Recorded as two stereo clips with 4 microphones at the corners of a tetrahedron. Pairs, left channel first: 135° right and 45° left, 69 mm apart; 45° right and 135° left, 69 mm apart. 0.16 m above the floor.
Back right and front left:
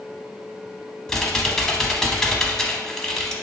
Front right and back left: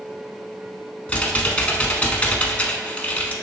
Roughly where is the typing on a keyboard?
Ahead right.